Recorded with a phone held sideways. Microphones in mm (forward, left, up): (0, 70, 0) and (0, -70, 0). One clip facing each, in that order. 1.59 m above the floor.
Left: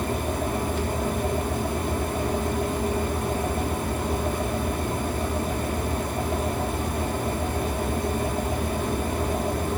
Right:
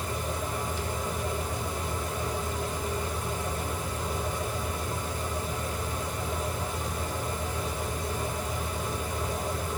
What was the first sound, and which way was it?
A fan, 60° left (ahead or behind).